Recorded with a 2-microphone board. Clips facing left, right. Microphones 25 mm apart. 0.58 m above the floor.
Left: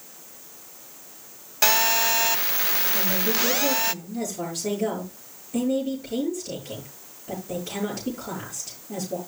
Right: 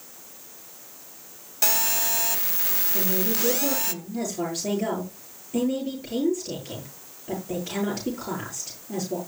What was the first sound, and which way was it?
A phone buzzing, 30° left (ahead or behind).